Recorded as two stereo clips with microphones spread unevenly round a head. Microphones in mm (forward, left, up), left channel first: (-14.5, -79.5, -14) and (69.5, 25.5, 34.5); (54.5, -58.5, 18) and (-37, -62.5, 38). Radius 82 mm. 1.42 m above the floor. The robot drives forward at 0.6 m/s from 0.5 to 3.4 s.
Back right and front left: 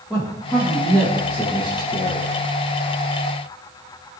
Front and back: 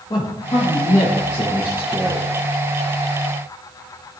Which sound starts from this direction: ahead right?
A man speaking, at 0.1 s.